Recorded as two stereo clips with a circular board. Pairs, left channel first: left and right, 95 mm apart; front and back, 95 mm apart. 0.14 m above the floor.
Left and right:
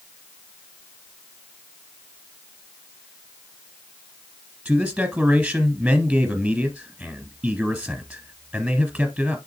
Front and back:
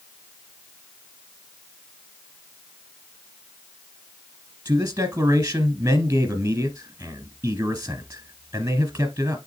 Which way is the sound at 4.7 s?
165° right.